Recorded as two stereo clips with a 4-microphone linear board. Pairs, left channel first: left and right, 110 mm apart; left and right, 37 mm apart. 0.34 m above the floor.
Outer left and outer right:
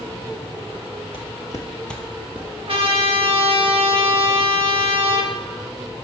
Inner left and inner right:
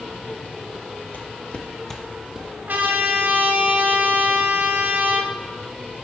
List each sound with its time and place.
1.1 s footsteps: 60° left (ahead or behind), 0.5 m; by 2.5 s 15° right (ahead or behind), 0.8 m
2.7 s a trumpet: 55° right (ahead or behind), 0.6 m